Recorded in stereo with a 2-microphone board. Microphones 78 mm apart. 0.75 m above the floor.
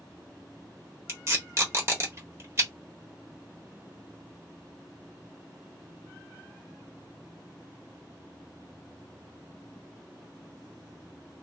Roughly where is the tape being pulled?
Right.